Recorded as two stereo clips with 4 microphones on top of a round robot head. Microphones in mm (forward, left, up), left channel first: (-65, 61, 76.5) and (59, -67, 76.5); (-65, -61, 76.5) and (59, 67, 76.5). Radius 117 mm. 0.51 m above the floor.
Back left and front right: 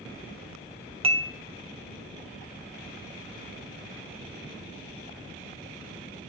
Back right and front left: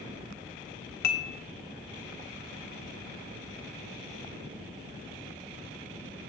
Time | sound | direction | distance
1.0 | dishes clattering | 105° right | 1.3 m